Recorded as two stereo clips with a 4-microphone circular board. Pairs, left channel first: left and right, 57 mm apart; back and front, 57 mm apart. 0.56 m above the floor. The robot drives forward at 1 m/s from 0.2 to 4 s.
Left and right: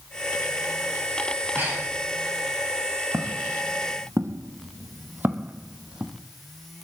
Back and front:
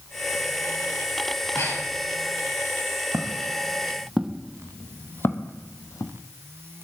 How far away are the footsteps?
About 2.5 m.